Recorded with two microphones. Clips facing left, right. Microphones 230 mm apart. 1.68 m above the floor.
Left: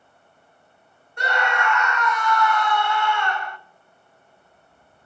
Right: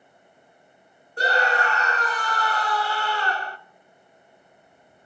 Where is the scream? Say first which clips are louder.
Right 2 dB; 35° right (ahead or behind), 0.5 m.